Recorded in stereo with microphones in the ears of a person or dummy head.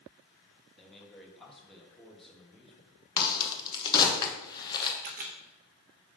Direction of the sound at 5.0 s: 40° right (ahead or behind).